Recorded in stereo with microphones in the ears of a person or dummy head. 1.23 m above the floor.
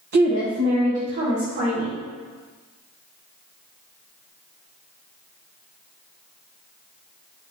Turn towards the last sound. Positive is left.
turn(degrees=-55)  # may be behind; listen again after turning